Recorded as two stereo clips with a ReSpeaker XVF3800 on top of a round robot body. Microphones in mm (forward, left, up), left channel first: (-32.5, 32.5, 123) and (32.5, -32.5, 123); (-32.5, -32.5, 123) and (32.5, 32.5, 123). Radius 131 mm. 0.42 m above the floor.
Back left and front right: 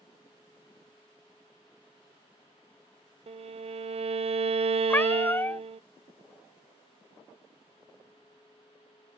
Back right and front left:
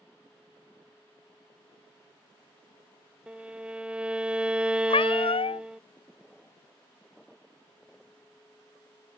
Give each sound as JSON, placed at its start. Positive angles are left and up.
{"t": 3.3, "sound": "a violin", "azimuth_deg": -35}
{"t": 4.9, "sound": "a cat meowing", "azimuth_deg": -155}